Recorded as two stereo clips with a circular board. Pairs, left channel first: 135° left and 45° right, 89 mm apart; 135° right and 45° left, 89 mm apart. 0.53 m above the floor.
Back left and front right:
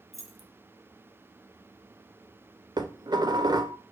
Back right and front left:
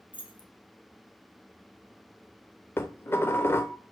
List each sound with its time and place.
0.1 s keys jangling: 135° right, 2 m
2.8 s dishes clattering: 75° right, 1.1 m